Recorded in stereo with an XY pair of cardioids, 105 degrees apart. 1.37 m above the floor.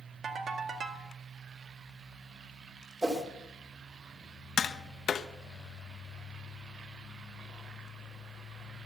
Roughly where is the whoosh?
Ahead right.